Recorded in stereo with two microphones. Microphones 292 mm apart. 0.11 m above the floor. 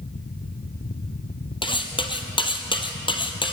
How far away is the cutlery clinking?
About 2 m.